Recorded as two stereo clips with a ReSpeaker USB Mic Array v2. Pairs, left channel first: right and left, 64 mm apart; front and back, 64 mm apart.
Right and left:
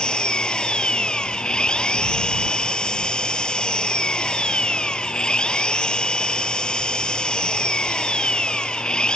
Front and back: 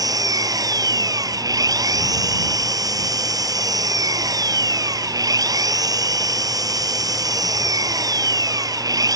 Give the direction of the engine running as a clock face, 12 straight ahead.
6 o'clock.